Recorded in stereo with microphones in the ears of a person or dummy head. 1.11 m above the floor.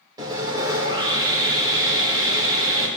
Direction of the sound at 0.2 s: 25° right (ahead or behind).